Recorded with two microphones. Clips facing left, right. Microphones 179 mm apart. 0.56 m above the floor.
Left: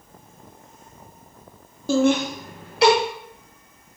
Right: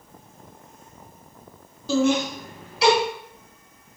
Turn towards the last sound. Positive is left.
turn(degrees=65)  # may be behind; listen again after turning